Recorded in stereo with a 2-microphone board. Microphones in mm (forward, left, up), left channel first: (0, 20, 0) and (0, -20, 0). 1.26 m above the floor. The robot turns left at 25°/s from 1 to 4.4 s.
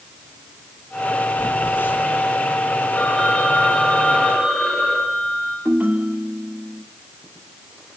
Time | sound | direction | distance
1.4 | a phone buzzing | 65° left (ahead or behind) | 6 m
3.0 | a phone ringing | 40° left | 9.5 m
5.7 | a ringtone | 50° right (ahead or behind) | 2 m